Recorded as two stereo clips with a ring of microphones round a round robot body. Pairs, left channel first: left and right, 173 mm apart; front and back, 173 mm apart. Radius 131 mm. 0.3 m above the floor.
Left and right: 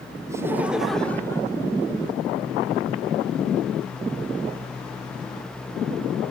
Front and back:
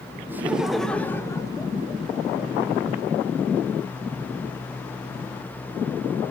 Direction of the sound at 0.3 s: 125° right.